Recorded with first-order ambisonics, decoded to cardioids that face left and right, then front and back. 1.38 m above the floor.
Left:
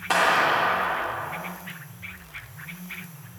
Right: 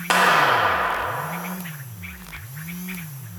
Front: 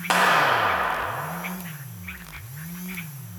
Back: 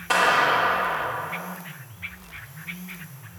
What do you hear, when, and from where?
0.1 s a clap: 50° right, 1.4 m